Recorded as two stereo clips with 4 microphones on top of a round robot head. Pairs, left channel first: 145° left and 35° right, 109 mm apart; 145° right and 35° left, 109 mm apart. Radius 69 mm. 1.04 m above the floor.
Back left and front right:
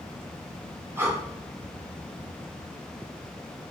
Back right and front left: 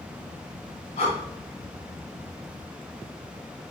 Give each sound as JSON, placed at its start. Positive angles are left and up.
{"t": 1.0, "sound": "breathing", "azimuth_deg": -105, "distance_m": 3.0}